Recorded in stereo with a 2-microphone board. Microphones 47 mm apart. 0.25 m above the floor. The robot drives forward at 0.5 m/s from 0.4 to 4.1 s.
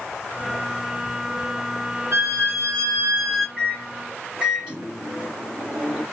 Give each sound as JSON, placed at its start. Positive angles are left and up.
{"t": 2.1, "sound": "a violin", "side_deg": -60, "distance_m": 2.5}
{"t": 3.6, "sound": "a microwave", "side_deg": -20, "distance_m": 1.8}